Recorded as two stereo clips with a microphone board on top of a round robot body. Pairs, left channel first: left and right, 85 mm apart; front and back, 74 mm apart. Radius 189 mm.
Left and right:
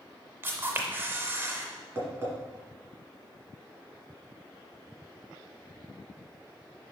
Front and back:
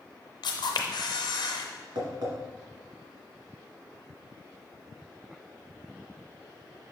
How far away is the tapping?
About 1.9 m.